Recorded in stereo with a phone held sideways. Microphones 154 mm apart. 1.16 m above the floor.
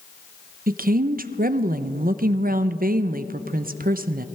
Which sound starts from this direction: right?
A woman speaking, at 0.7 s.